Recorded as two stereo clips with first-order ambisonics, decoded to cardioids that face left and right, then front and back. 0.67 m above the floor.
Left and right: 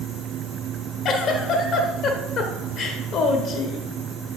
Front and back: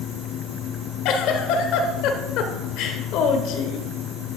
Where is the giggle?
35° left, 1.0 m.